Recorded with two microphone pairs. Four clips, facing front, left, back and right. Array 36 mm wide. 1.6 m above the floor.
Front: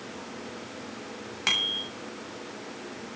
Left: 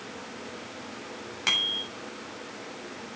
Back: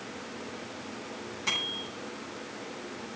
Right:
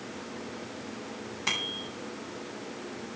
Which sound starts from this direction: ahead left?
A bicycle bell, at 1.5 s.